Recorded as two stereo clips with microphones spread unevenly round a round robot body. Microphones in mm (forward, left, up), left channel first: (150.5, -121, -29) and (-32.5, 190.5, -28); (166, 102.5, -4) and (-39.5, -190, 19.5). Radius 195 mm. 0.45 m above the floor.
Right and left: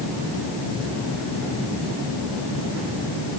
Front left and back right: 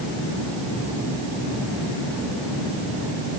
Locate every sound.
Only background noise.